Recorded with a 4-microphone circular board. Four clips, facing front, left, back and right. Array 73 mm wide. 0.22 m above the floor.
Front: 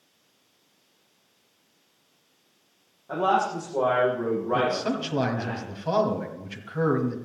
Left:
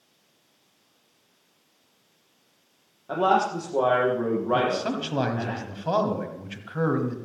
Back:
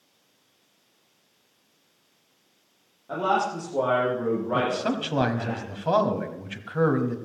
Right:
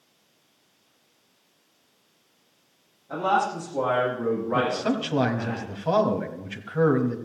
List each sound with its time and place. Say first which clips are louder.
3.1 s a man speaking: left 2 dB, front 1 dB; 95° left, 8 m
4.5 s a man speaking: even, even; 175° right, 1.5 m